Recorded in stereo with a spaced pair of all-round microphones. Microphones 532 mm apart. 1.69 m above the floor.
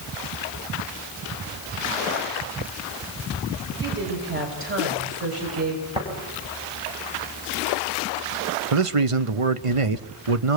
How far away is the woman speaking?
About 9 m.